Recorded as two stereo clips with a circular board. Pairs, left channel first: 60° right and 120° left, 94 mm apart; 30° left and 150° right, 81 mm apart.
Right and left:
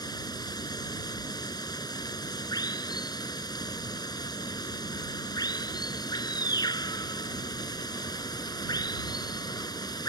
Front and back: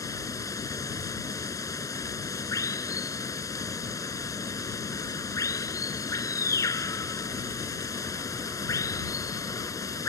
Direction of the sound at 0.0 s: 15° right.